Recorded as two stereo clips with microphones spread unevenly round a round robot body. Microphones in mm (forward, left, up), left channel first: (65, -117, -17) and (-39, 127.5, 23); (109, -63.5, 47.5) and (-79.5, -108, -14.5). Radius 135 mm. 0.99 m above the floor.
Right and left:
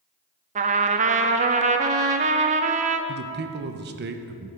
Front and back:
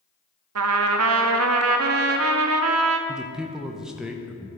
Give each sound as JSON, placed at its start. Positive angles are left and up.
{"t": 0.6, "sound": "a trumpet", "azimuth_deg": 170, "distance_m": 0.5}
{"t": 3.1, "sound": "a man speaking", "azimuth_deg": 140, "distance_m": 0.6}